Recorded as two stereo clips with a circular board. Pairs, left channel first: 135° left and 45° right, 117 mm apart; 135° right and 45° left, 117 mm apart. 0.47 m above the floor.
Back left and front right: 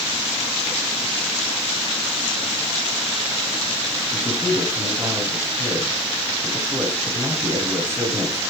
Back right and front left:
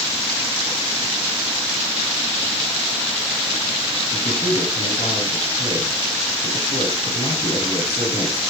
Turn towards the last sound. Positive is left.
turn(degrees=-100)